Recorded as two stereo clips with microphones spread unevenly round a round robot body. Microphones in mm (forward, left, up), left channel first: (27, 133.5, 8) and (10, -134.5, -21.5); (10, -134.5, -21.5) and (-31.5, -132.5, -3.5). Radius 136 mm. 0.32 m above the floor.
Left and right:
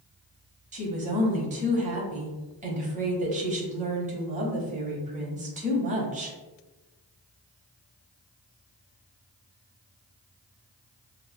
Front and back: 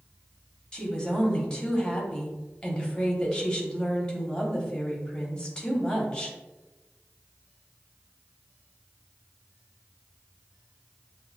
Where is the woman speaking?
45° right, 1.4 m.